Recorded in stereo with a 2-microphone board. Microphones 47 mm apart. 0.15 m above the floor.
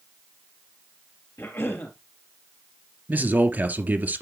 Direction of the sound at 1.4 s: 55° left (ahead or behind).